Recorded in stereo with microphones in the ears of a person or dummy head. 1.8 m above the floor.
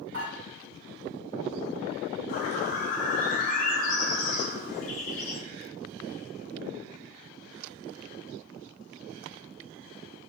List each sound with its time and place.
0.1 s dishes clattering: 50° right (ahead or behind), 1.7 m
2.3 s a bird: 40° left (ahead or behind), 0.6 m